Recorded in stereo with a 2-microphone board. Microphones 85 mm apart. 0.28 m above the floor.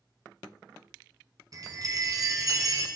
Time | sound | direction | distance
1.5 | a chime | 45° right (ahead or behind) | 1.2 m